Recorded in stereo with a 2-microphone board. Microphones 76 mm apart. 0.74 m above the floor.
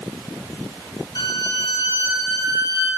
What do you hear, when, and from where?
1.1 s a violin: 75° left (ahead or behind), 2.5 m